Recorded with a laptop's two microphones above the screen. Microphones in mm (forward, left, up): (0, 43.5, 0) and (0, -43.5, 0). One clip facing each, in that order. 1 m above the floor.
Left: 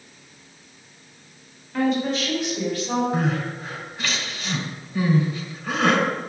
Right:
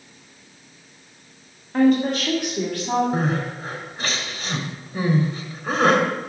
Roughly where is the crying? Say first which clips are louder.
Right 1 dB; right.